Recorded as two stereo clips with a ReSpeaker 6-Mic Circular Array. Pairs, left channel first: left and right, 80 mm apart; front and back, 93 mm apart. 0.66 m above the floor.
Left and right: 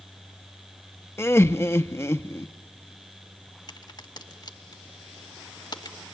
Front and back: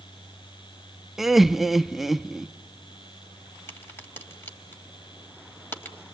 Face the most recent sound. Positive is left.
turn(degrees=65)